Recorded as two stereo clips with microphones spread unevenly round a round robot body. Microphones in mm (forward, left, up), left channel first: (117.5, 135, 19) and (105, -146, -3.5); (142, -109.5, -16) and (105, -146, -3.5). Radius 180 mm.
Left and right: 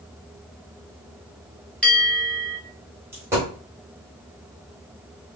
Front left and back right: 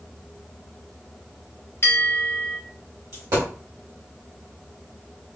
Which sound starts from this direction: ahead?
A bell, at 1.8 s.